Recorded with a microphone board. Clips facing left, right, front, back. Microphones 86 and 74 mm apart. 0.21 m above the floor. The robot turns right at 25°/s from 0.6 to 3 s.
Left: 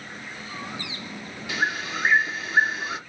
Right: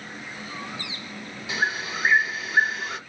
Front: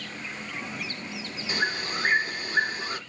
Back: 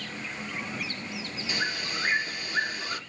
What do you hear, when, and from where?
1.5 s a bird: 30° right, 1.4 m; by 3.0 s 10° left, 1.4 m